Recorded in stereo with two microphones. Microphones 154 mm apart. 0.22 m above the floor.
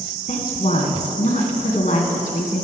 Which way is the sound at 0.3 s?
55° left (ahead or behind).